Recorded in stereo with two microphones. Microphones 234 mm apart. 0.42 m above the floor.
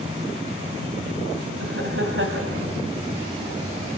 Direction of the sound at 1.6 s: 60° right (ahead or behind).